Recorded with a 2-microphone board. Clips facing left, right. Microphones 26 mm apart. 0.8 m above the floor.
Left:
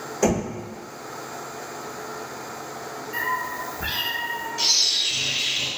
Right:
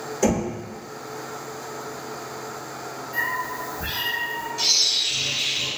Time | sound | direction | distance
0.2 | knocking | 15° left (ahead or behind) | 1.5 m
3.1 | a cat meowing | 35° left (ahead or behind) | 1.5 m
4.6 | a bird | 15° left (ahead or behind) | 1.9 m